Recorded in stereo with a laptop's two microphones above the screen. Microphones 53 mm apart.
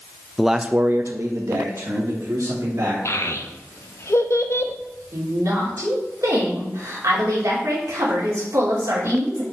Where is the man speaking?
5° left (ahead or behind), 0.7 m; by 3.0 s 80° right, 3 m.